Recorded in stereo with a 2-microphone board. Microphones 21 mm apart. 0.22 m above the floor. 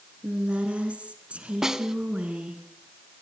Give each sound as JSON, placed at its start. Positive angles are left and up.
{"t": 0.2, "sound": "a woman speaking", "side_deg": -55, "distance_m": 3.0}
{"t": 1.6, "sound": "a snare drum", "side_deg": -20, "distance_m": 1.0}